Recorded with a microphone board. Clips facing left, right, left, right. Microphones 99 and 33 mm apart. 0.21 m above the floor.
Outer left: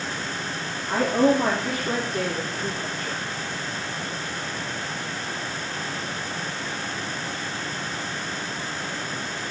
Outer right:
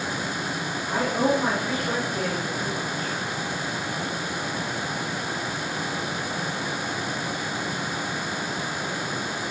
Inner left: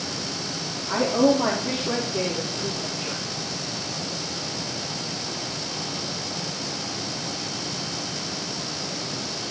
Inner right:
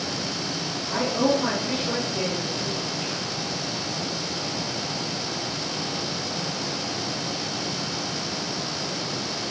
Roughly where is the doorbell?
No doorbell in this recording.